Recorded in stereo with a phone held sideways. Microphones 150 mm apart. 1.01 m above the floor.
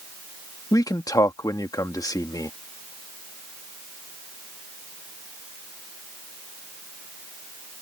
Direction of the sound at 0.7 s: 25° left (ahead or behind).